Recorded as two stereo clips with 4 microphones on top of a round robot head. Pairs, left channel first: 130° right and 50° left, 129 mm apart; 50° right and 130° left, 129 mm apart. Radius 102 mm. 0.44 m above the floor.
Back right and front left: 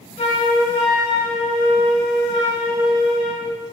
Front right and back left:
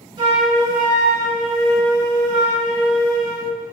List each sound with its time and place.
0.2 s a flute: 170° right, 0.6 m